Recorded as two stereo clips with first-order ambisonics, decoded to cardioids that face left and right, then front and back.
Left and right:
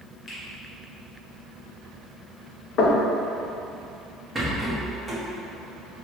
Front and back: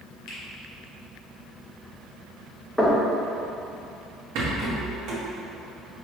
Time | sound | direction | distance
0.3 | a finger snap | 20° left | 1.4 m
2.8 | knocking | 80° left | 0.7 m
4.3 | a rattle | 170° right | 1.1 m